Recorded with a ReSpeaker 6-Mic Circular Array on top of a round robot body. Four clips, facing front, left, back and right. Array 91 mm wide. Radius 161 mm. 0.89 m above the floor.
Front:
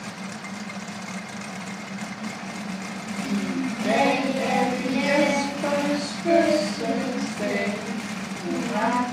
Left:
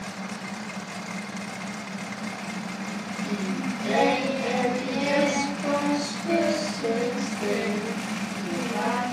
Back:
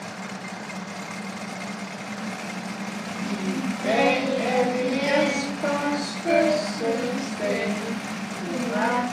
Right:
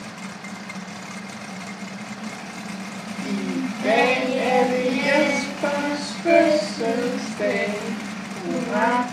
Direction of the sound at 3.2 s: 90° right.